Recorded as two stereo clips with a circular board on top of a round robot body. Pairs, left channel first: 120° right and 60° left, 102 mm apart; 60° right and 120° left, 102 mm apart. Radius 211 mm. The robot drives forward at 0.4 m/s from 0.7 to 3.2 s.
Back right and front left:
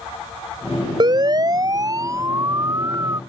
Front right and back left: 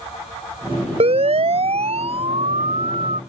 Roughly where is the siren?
Left.